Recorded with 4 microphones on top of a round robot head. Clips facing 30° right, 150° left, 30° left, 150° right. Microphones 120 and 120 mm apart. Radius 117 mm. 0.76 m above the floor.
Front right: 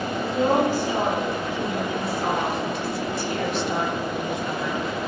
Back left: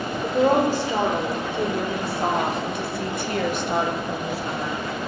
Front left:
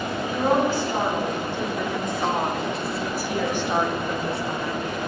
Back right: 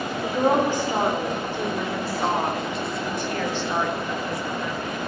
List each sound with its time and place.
0.2 s a woman speaking: 140° left, 3 m; by 4.8 s 85° left, 1.3 m